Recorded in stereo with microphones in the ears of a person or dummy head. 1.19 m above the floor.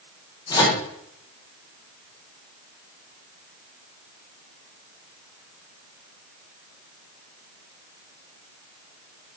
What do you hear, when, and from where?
0.5 s a microwave: 25° left (ahead or behind), 1.9 m